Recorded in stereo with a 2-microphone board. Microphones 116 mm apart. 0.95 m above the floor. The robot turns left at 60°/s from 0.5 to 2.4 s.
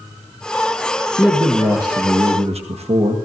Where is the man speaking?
Straight ahead, 1.2 m; by 3.2 s 75° right, 1.2 m.